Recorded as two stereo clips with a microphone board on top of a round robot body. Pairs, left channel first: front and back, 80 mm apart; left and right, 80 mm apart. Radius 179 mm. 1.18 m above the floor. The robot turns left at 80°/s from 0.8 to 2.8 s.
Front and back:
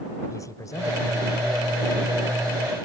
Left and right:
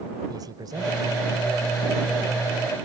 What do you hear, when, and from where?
0.3 s a man speaking: 50° right; by 2.9 s 150° left